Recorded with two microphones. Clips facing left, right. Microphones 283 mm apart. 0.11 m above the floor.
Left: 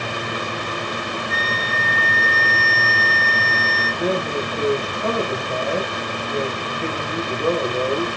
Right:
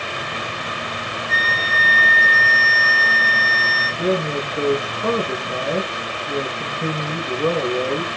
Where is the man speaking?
45° right (ahead or behind), 8 m.